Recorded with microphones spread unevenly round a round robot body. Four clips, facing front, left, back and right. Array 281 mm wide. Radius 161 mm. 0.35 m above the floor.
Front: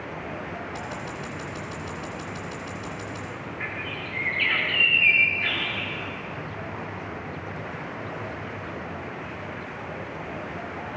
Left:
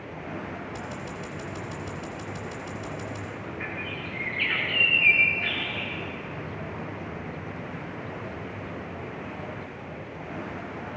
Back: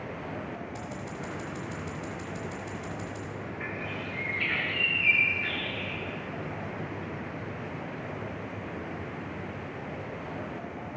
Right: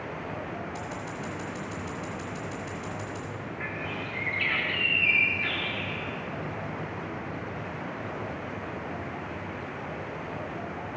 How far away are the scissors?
About 1.2 m.